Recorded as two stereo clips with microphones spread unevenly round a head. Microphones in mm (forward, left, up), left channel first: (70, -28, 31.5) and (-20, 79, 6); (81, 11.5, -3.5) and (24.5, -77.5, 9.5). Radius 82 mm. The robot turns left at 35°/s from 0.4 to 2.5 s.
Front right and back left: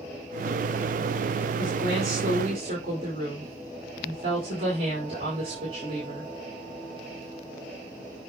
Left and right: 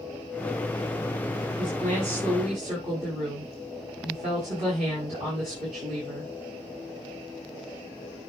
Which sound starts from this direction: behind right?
A woman speaking, at 1.6 s.